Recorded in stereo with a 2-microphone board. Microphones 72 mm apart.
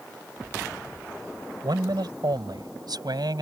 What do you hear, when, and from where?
1.6 s a man speaking: 80° right; by 3.4 s 75° right (ahead or behind)